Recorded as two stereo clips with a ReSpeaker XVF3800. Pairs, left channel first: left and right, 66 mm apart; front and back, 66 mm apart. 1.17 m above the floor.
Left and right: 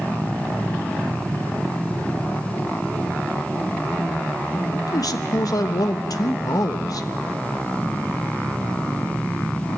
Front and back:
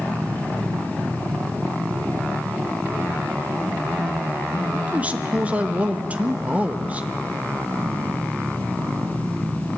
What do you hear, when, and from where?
4.7 s a man speaking: 115° left, 1.2 m